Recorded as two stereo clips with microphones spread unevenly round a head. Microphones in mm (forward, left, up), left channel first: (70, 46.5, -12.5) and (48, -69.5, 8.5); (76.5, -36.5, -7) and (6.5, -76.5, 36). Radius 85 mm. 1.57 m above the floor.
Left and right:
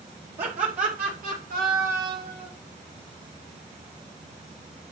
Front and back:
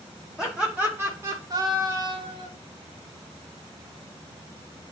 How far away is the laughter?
About 1.1 m.